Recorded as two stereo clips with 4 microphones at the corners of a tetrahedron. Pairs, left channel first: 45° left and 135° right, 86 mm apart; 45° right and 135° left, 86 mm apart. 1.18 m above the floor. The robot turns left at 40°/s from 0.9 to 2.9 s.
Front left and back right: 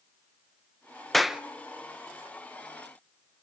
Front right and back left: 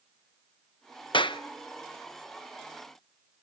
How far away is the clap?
About 0.8 m.